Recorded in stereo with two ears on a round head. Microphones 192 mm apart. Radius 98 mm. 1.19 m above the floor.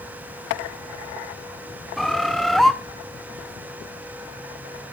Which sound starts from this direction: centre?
A bird, at 2.0 s.